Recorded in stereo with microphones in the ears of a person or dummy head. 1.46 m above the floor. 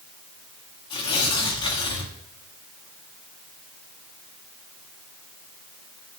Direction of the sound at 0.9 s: 25° left (ahead or behind).